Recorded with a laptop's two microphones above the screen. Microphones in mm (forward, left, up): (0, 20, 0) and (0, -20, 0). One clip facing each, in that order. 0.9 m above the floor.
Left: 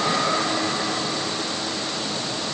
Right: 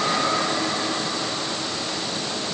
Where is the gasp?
No gasp in this recording.